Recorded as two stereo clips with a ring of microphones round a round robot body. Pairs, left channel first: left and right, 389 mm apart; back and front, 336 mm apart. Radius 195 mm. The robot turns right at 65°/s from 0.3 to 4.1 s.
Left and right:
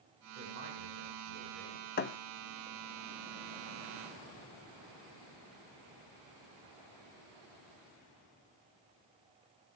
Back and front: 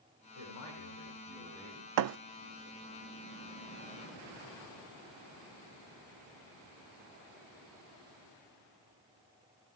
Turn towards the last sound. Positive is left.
turn(degrees=165)